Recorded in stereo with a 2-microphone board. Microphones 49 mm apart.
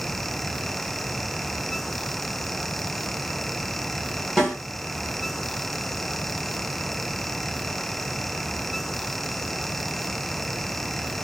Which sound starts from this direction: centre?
A snare drum, at 4.4 s.